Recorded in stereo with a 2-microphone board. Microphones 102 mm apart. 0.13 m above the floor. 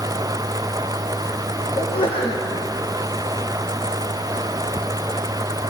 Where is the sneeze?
55° left (ahead or behind), 4.5 m.